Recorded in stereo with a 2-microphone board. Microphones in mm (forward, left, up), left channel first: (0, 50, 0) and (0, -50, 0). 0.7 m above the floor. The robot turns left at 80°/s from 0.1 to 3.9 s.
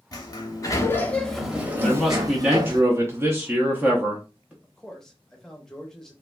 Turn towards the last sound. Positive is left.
turn(degrees=5)  # may be behind; listen again after turning